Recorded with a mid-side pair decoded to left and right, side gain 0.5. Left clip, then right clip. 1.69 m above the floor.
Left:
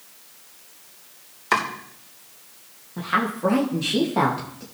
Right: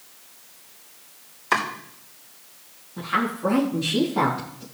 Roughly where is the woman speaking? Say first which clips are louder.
Left 1 dB; ahead left.